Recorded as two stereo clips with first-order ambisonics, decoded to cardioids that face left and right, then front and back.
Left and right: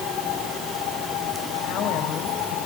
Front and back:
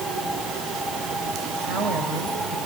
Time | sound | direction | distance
1.6 | a woman speaking | 135° left | 4.5 m